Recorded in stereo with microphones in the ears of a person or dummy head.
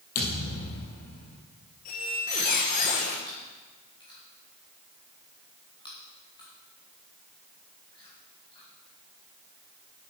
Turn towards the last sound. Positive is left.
turn(degrees=25)  # may be behind; listen again after turning